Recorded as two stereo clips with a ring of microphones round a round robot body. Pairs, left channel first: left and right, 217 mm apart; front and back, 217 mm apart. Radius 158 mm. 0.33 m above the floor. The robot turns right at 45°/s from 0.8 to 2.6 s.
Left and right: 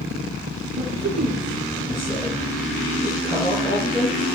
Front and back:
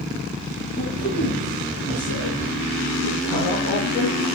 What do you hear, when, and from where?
0.8 s a man speaking: 65° right, 8.5 m; by 4.2 s 15° left, 8.5 m